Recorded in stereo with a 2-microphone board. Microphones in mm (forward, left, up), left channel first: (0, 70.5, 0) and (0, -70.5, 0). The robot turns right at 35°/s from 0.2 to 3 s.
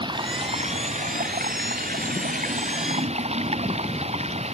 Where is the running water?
145° right; by 4.5 s 50° right.